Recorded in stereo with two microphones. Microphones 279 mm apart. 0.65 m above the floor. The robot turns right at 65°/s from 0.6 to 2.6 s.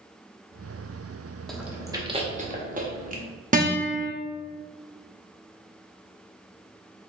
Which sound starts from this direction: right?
A guitar, at 3.5 s.